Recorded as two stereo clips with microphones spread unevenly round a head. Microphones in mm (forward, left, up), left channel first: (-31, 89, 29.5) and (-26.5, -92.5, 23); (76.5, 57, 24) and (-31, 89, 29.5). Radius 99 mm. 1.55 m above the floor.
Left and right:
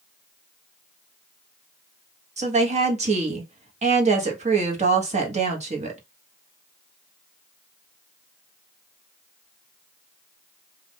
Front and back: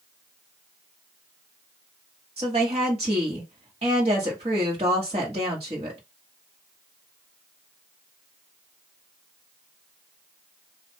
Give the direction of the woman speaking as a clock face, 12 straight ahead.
5 o'clock.